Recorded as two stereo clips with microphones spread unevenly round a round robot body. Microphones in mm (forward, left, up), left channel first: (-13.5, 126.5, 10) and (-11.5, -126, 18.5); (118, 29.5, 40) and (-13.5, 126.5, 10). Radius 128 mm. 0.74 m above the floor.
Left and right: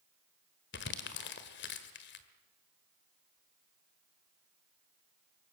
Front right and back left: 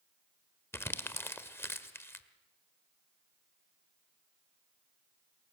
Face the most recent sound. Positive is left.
turn(degrees=40)